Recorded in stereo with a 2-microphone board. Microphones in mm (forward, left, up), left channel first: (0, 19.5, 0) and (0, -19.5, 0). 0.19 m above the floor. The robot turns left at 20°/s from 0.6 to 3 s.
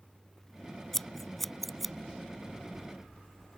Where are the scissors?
10° left (ahead or behind); by 1.9 s 5° right (ahead or behind).